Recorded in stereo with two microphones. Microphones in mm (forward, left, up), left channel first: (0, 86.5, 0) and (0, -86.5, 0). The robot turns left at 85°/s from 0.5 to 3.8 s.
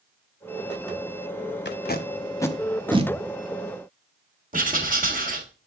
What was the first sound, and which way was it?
Tape being pulled, 75° left (ahead or behind).